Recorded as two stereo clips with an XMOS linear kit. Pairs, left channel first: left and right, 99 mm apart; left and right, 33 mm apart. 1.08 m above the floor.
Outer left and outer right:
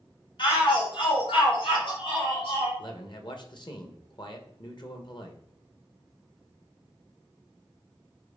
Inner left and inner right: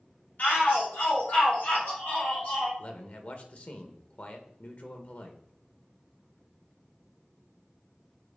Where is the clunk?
I don't hear a clunk.